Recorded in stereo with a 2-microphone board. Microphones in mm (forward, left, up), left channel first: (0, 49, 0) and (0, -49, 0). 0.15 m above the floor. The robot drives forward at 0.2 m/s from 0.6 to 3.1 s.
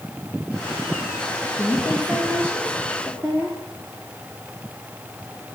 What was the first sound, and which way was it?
A woman speaking, 25° right (ahead or behind).